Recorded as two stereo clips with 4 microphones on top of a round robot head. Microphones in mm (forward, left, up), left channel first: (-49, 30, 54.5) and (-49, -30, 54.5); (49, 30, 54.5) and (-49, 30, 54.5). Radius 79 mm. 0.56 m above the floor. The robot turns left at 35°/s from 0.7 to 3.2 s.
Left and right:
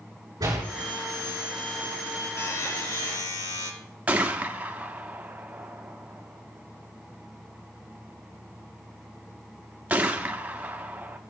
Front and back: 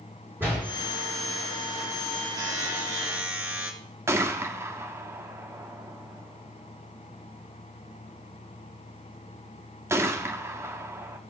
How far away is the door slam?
About 7 m.